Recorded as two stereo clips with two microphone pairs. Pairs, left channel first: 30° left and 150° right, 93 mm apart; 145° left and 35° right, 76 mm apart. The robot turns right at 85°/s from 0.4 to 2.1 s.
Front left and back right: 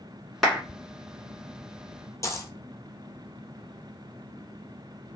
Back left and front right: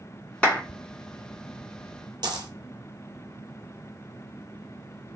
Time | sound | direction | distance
0.4 | a clap | 110° left | 1.4 m
2.2 | a dropped coin | 20° right | 0.5 m